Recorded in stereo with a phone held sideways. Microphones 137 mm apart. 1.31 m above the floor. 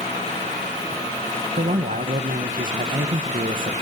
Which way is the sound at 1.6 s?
80° right.